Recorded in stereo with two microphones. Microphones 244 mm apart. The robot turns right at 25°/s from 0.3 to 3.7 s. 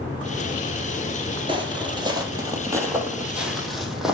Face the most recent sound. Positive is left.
turn(degrees=0)  # may be behind; listen again after turning